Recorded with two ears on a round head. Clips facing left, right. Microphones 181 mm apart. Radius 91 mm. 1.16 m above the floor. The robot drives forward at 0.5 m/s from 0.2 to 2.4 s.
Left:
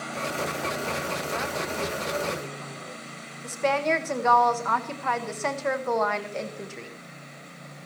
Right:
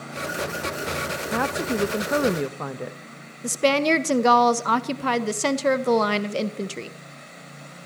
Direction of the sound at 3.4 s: 45° right (ahead or behind).